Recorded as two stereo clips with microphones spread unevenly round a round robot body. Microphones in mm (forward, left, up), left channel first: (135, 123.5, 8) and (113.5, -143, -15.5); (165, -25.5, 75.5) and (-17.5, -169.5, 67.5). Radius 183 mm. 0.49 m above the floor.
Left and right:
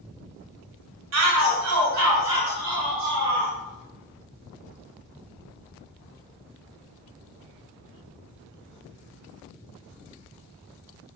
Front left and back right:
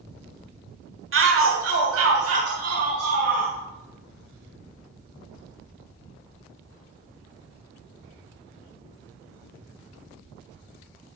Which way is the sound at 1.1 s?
120° right.